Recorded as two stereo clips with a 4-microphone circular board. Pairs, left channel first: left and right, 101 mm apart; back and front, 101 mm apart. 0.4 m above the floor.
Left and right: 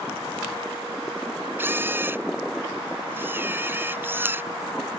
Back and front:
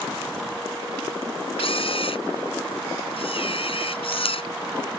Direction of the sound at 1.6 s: 160° right.